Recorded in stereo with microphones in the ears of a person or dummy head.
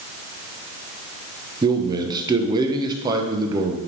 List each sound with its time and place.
1.6 s a man speaking: 25° right (ahead or behind), 0.8 m